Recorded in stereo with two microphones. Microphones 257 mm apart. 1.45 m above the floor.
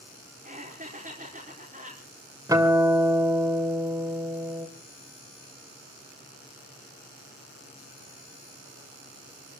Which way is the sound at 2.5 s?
15° right (ahead or behind).